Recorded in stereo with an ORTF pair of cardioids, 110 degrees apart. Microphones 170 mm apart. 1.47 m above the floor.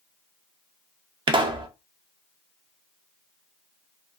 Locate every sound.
1.3 s a pop: 30° right, 0.6 m